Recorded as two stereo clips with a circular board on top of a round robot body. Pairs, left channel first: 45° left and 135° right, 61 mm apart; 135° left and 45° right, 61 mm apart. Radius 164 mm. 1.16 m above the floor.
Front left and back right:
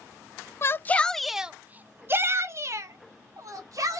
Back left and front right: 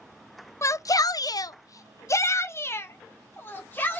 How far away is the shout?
About 0.6 m.